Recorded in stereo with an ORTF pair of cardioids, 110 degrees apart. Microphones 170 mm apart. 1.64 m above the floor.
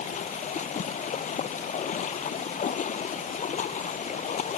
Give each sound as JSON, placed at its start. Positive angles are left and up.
{"t": 0.0, "sound": "running water", "azimuth_deg": 45}